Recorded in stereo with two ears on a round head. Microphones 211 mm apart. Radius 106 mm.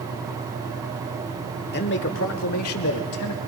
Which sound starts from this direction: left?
A man speaking, at 1.7 s.